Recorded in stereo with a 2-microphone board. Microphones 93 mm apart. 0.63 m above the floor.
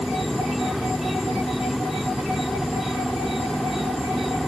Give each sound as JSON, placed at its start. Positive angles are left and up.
{"t": 0.0, "sound": "an insect", "side_deg": 0}